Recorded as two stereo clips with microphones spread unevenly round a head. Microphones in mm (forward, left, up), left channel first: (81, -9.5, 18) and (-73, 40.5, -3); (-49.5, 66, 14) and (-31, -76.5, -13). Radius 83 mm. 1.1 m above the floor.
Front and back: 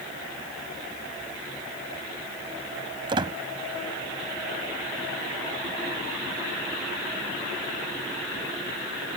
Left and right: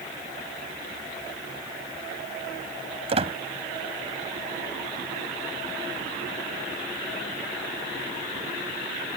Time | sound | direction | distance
3.1 | a squeak | 130° right | ?